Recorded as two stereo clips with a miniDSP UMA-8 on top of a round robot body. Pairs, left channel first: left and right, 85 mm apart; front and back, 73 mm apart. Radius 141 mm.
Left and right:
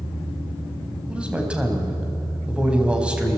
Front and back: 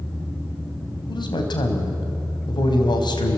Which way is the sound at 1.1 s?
10° right.